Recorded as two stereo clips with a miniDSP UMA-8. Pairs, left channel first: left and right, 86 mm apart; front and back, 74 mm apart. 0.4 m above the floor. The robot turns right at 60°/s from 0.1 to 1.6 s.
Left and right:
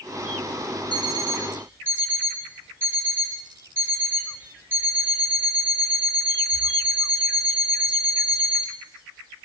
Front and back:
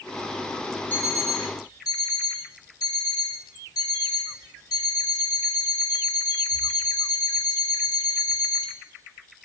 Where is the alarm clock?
65° right, 2.5 m; by 8.7 s 25° right, 2.5 m.